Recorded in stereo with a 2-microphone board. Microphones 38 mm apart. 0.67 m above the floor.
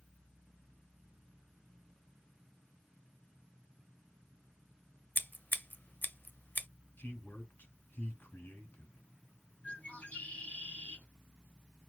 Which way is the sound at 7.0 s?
70° left (ahead or behind).